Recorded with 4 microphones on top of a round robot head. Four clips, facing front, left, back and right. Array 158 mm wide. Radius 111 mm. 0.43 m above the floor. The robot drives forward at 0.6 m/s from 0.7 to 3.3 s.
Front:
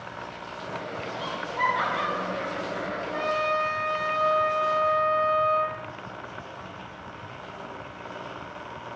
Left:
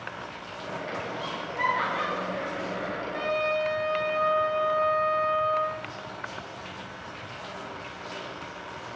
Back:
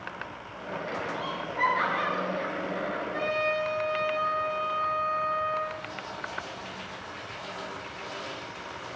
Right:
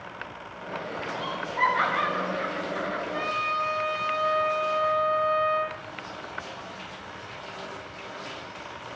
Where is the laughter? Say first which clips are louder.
Right 4 dB, front 1 dB; 55° right, 3 m; by 3.0 s 80° right, 3 m.